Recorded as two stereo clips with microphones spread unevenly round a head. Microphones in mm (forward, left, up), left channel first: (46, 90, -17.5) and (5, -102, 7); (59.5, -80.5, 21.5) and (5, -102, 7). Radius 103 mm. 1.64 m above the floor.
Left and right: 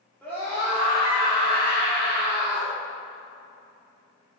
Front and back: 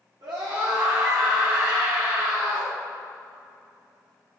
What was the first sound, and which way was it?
A scream, 160° left.